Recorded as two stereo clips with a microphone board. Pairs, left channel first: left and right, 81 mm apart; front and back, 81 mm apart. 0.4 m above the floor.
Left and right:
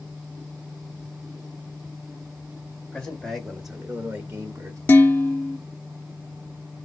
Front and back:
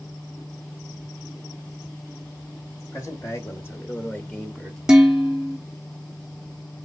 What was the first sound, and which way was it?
A man speaking, 20° left.